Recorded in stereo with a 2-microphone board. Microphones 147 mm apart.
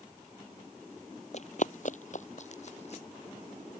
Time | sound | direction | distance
1.3 | running footsteps | 50° left (ahead or behind) | ?